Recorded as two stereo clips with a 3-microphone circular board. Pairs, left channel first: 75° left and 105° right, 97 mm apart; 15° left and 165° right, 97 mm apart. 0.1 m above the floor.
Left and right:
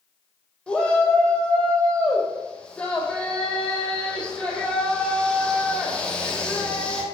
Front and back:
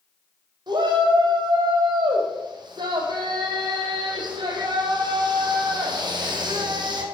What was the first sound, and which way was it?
A shout, 155° left.